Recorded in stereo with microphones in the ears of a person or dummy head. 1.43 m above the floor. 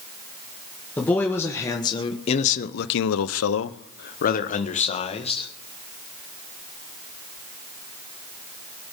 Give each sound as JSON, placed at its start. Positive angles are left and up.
{"t": 1.0, "sound": "a man speaking", "side_deg": 10, "distance_m": 1.7}